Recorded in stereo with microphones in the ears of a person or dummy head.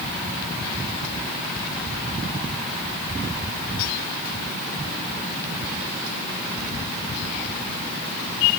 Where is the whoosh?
No whoosh in this recording.